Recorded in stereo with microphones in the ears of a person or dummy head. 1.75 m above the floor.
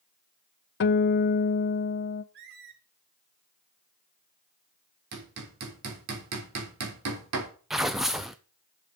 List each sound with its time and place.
0.8 s a guitar: 55° left (ahead or behind), 0.6 m
2.3 s a squeak: 60° right (ahead or behind), 1.9 m
5.1 s hammering: 75° right (ahead or behind), 3.5 m
7.7 s tearing paper: 5° right (ahead or behind), 0.6 m